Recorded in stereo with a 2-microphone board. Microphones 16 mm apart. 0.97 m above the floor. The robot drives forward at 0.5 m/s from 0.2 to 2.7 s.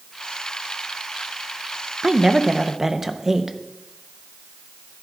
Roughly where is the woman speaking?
Right.